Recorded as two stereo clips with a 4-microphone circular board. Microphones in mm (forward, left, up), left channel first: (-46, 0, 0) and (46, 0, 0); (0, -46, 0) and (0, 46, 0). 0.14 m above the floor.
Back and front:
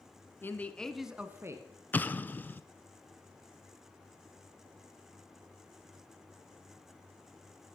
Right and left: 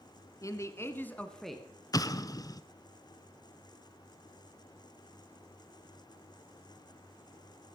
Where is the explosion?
115° right, 0.6 m.